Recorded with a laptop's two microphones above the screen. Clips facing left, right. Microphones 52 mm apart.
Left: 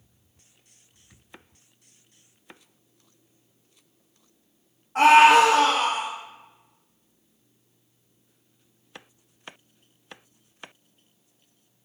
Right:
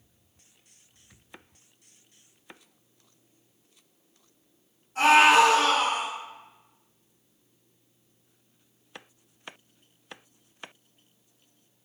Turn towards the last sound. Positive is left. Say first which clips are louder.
# left 4 dB
turn(degrees=55)  # may be behind; listen again after turning